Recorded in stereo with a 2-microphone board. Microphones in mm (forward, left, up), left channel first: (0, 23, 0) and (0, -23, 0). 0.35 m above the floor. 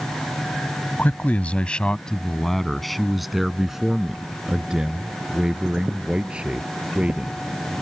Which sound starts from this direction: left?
A man speaking, at 1.0 s.